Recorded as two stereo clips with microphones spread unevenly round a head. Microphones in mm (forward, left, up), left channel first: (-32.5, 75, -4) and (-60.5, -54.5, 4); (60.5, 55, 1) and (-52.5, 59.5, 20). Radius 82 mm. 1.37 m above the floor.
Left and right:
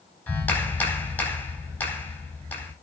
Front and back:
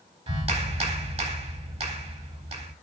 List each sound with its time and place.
0.3 s a clap: 155° left, 4.5 m